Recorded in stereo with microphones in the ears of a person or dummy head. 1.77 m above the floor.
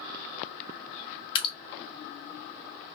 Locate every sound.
1.4 s dripping: 25° left (ahead or behind), 0.6 m